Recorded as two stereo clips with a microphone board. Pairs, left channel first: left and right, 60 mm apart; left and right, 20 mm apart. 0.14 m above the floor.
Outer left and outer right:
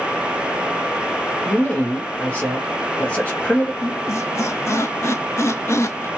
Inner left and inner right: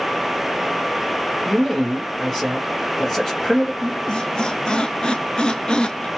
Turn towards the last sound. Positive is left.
turn(degrees=50)  # may be behind; listen again after turning